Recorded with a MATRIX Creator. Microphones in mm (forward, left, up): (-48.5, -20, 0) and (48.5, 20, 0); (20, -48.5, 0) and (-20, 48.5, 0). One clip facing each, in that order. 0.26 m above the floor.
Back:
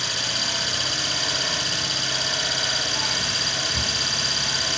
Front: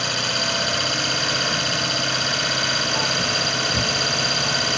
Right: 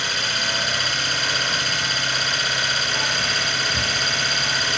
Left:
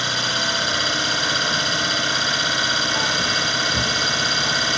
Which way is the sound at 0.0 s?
50° left.